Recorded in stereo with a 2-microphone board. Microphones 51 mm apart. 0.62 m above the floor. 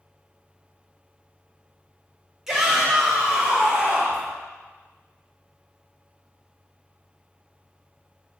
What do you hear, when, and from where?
2.5 s a shout: 10° right (ahead or behind), 2.5 m; by 4.3 s 30° right (ahead or behind), 2.5 m